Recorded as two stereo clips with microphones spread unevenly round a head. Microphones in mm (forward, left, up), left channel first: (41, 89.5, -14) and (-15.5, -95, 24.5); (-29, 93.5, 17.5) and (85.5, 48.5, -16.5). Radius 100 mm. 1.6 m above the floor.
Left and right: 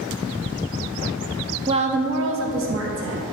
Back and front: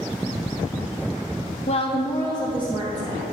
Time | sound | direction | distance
1.7 | a woman speaking | 170° right | 0.8 m